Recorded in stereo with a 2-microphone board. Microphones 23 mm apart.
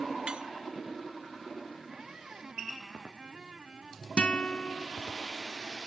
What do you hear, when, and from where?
0.3 s cutlery clinking: 45° right (ahead or behind)
1.9 s a squeak: 35° right (ahead or behind)
4.2 s a guitar: 50° left (ahead or behind)